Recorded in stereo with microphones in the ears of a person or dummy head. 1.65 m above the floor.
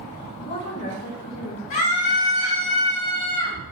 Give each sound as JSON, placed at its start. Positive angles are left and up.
{"t": 0.4, "sound": "a woman speaking", "side_deg": 50, "distance_m": 4.0}
{"t": 1.7, "sound": "a scream", "side_deg": 65, "distance_m": 4.0}